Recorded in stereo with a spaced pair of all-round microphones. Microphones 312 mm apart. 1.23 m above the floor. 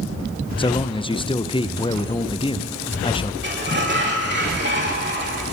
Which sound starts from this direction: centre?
A man speaking, at 0.6 s.